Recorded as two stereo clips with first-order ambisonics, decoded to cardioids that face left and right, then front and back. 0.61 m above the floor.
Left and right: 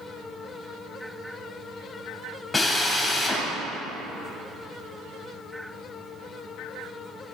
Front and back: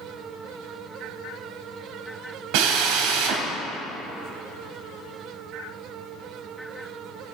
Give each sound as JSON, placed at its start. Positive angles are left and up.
{"t": 2.5, "sound": "a drill", "azimuth_deg": 170, "distance_m": 1.7}